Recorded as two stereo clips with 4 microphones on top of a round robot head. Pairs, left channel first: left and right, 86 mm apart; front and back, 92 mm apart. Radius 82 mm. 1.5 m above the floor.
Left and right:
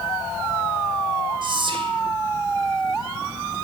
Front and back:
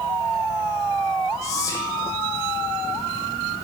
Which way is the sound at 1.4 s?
60° right.